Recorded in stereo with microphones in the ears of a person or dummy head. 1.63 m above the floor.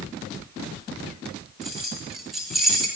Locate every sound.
1.6 s keys jangling: centre (ahead or behind), 1.4 m